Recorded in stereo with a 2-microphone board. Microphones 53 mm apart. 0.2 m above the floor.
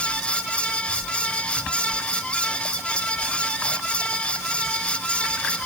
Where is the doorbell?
No doorbell in this recording.